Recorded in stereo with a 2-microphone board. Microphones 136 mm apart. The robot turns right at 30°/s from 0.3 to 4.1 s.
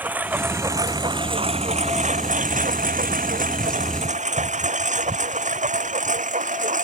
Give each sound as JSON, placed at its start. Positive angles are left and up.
{"t": 0.0, "sound": "a lawn mower", "side_deg": -10}